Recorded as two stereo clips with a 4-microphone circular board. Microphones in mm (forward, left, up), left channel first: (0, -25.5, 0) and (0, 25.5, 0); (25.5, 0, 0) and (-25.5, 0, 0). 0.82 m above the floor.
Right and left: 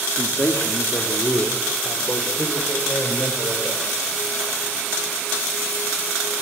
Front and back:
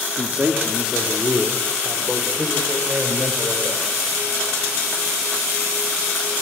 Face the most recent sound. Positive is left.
turn(degrees=-105)